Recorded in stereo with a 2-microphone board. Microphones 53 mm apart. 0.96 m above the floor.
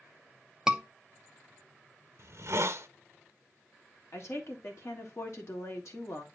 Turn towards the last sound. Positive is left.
turn(degrees=55)  # may be behind; listen again after turning